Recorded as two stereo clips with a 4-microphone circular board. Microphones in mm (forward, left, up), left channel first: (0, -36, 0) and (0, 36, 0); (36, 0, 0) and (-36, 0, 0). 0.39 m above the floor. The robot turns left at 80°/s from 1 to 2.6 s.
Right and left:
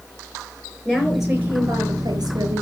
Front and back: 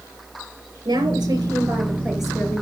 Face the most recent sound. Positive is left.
turn(degrees=65)